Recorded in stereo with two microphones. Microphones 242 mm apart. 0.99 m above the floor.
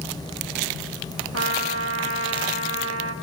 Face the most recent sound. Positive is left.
turn(degrees=-80)